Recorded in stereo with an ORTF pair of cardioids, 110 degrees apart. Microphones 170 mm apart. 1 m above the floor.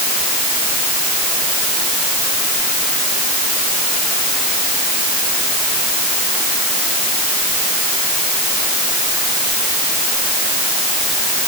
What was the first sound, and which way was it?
Only background noise.